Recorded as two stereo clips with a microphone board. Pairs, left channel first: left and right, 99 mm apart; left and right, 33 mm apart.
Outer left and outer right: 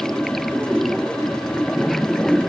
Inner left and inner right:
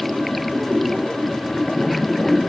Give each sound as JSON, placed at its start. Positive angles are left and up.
{"t": 0.0, "sound": "running water", "side_deg": 5}